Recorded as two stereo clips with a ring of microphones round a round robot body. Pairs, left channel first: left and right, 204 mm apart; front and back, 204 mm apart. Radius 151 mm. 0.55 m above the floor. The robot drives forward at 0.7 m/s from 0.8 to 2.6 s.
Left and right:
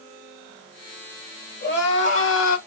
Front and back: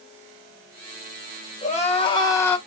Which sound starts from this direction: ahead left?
Crying, at 1.6 s.